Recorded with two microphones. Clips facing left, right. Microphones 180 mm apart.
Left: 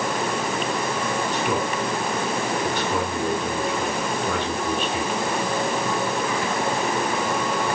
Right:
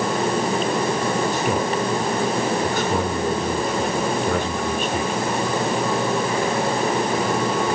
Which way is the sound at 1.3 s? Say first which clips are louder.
Right 3 dB; 45° right (ahead or behind).